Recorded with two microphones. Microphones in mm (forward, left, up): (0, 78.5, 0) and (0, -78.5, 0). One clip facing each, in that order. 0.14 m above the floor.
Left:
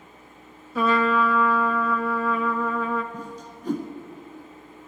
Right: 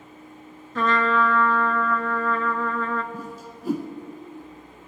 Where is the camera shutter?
I don't hear a camera shutter.